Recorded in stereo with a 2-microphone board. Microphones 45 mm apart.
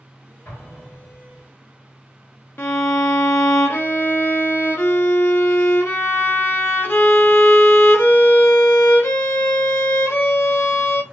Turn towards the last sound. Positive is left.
turn(degrees=55)  # may be behind; listen again after turning